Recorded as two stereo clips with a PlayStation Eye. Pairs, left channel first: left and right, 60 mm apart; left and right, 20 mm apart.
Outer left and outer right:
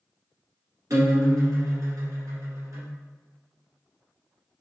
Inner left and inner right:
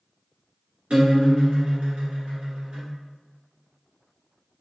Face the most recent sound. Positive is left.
turn(degrees=-65)  # may be behind; listen again after turning